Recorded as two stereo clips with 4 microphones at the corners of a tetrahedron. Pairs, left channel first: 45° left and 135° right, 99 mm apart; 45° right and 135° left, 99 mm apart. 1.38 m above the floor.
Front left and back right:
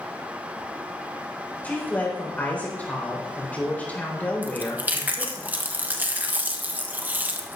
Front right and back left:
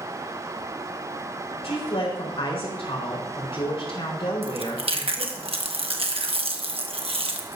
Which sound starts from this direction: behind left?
Chewing, at 4.4 s.